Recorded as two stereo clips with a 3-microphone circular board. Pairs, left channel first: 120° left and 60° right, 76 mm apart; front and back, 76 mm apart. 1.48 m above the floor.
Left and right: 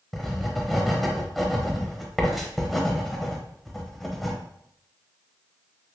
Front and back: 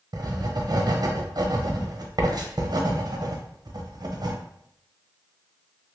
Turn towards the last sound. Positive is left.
turn(degrees=-150)